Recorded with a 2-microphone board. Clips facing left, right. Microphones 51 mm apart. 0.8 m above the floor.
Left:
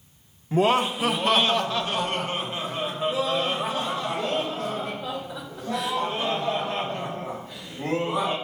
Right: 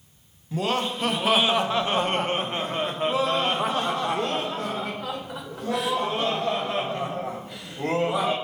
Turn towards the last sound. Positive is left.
turn(degrees=-75)  # may be behind; listen again after turning